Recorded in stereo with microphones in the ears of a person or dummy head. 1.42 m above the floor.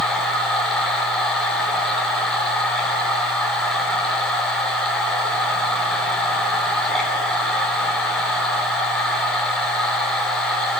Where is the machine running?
10° left (ahead or behind), 5 m.